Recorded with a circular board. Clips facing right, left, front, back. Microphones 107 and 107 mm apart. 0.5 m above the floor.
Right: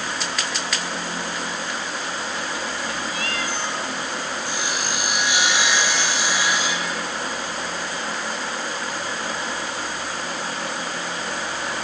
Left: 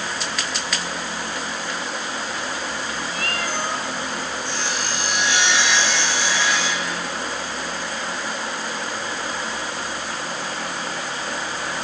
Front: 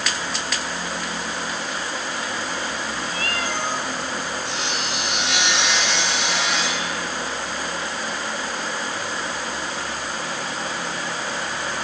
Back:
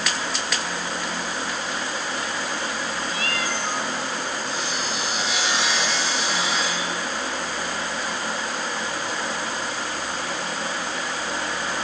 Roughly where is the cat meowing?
Ahead left.